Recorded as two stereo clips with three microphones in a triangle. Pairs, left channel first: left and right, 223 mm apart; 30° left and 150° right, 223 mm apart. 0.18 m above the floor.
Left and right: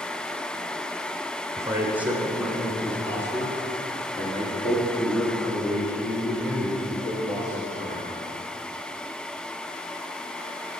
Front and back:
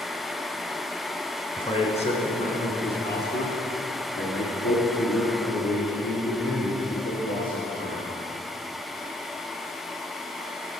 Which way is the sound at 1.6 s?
25° right.